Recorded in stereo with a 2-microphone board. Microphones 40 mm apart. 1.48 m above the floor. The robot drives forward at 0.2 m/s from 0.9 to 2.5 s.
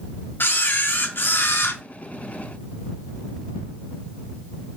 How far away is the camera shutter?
About 0.7 m.